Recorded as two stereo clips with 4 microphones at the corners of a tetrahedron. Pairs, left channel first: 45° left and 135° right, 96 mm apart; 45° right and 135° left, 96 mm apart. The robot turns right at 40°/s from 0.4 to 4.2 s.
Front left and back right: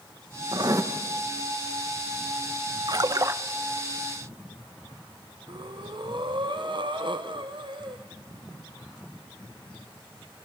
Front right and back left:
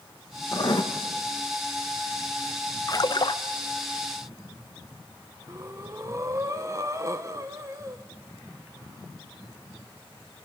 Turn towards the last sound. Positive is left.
turn(degrees=-170)